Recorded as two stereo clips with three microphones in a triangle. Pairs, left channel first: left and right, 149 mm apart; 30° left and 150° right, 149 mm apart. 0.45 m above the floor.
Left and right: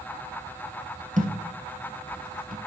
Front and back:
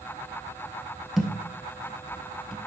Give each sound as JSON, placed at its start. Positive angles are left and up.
{"t": 1.2, "sound": "a thud", "azimuth_deg": -60, "distance_m": 1.7}